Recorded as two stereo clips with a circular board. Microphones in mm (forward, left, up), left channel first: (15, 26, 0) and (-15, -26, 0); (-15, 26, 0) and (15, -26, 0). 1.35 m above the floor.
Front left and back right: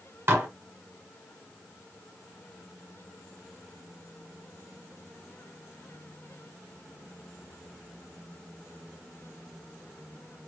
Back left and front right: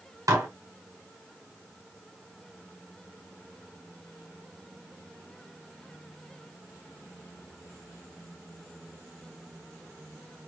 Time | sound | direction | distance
0.3 | dishes clattering | 70° right | 1.2 m